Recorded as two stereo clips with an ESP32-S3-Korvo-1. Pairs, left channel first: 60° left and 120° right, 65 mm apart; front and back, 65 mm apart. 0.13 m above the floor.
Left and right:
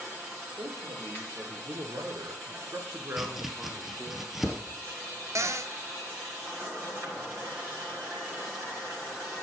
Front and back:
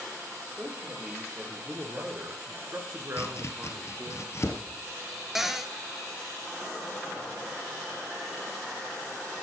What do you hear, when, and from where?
0.6 s a man speaking: 110° right, 3 m; by 4.2 s 170° left, 1.8 m
3.2 s chopping: 35° right, 1.2 m
5.3 s a cupboard door: 95° right, 0.6 m